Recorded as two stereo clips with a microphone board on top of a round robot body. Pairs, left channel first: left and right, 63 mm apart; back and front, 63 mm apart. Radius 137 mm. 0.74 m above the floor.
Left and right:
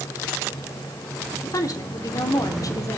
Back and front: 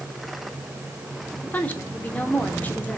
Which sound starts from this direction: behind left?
A woman speaking, at 1.4 s.